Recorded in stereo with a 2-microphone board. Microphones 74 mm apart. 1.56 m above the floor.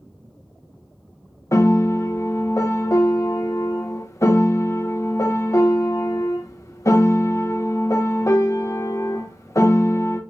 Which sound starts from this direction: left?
A piano, at 1.5 s.